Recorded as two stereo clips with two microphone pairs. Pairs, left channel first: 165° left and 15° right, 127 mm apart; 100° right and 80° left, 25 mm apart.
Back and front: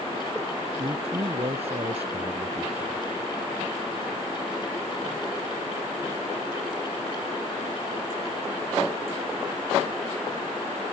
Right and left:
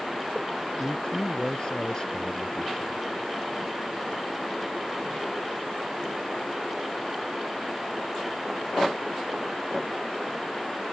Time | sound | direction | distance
0.8 | a man speaking | 45° right | ?